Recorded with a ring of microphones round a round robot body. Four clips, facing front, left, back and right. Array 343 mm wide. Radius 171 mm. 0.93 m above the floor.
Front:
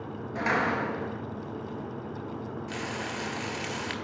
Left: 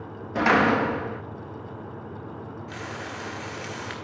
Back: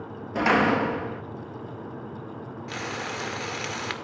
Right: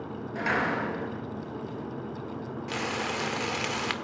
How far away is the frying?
About 1.7 m.